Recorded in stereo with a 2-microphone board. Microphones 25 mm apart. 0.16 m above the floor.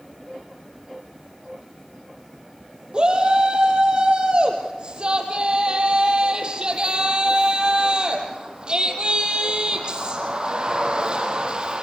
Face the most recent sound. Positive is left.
turn(degrees=-35)  # may be behind; listen again after turning